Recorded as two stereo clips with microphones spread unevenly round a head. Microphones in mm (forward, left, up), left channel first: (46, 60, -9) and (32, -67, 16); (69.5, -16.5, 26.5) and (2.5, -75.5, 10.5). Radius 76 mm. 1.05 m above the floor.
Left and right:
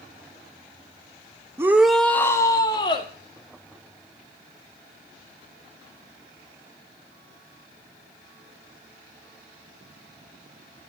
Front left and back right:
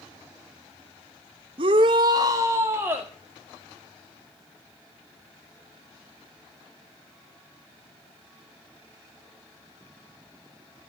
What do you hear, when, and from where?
1.6 s a shout: 175° right, 1.0 m; by 3.1 s 145° left, 2 m